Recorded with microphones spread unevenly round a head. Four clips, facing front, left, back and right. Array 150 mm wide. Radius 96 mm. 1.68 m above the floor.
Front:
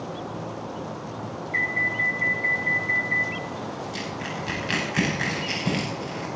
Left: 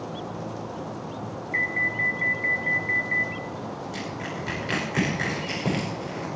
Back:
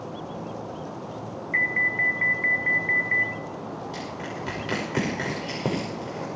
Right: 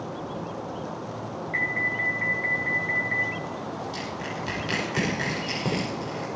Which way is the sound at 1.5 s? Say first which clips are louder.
Left 2 dB, back 1 dB; 135° right.